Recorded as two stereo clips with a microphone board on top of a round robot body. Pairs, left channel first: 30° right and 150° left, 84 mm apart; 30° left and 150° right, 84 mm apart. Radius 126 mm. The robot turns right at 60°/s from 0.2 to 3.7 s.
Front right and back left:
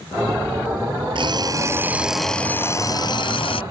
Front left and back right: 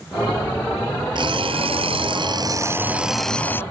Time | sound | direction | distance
1.1 | an alarm clock | straight behind | ?